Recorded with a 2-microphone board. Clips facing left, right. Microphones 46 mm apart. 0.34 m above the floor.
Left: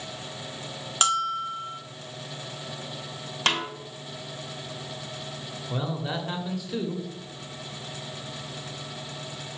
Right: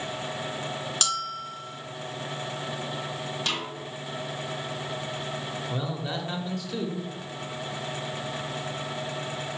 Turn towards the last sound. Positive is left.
turn(degrees=10)  # may be behind; listen again after turning